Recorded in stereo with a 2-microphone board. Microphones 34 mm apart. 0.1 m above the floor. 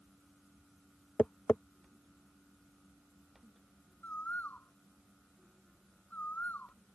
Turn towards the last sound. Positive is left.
turn(degrees=60)  # may be behind; listen again after turning